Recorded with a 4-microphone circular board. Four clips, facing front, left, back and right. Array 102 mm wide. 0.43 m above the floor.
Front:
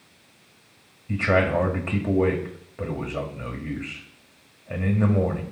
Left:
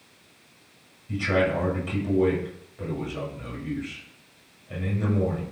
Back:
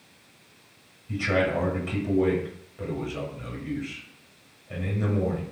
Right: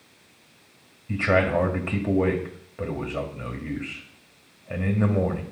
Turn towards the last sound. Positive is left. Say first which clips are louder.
# right 2 dB, front 3 dB
turn(degrees=-50)